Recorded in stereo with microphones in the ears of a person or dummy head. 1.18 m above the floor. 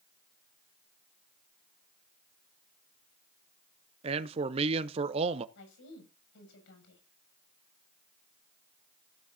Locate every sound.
4.0 s a man speaking: 30° right (ahead or behind), 0.8 m
5.5 s a woman speaking: 75° left (ahead or behind), 7 m